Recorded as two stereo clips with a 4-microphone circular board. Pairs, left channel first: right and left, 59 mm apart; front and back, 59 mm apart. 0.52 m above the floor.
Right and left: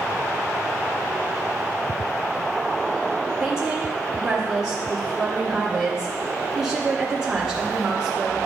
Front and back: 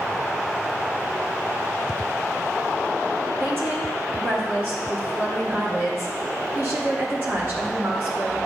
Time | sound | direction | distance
3.4 | a woman speaking | 165° left | 1.8 m